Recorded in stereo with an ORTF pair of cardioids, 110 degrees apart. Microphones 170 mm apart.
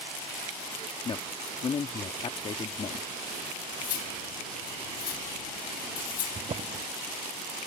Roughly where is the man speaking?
Ahead left.